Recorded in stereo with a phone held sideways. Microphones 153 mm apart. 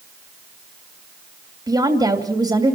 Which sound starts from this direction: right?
A woman speaking, at 1.7 s.